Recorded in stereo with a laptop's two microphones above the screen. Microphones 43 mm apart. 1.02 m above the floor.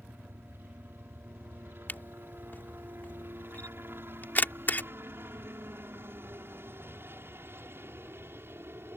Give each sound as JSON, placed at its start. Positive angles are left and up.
{"t": 0.0, "sound": "a helicopter", "side_deg": -55}
{"t": 1.9, "sound": "a camera shutter", "side_deg": 45}